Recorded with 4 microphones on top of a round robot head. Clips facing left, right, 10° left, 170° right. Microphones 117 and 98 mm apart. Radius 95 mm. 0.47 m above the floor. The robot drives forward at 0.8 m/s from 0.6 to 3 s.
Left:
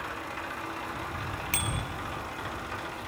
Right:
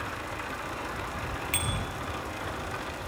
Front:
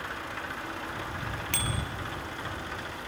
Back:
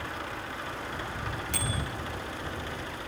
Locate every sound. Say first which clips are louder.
1.5 s a bicycle bell: even, front 1 dB; 35° left, 9 m